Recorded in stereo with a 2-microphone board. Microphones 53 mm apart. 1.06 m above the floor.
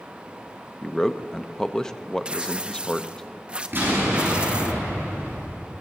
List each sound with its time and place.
0.8 s a man speaking: 15° left (ahead or behind), 0.5 m
2.2 s tearing paper: 20° right (ahead or behind), 0.6 m
3.7 s an explosion: 40° right (ahead or behind), 6 m